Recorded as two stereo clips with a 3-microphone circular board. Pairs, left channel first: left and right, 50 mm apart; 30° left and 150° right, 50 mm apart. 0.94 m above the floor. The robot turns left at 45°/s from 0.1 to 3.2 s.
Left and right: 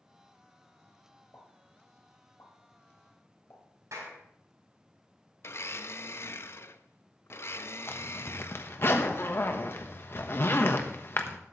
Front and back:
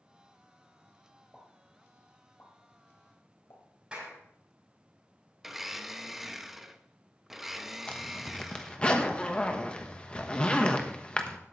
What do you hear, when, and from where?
1.3 s a pop: 125° left, 3 m; by 3.6 s 45° left, 3 m
3.9 s a clap: 80° right, 5 m
5.4 s a blender: 130° left, 0.6 m
7.9 s a zipper: 95° left, 1.1 m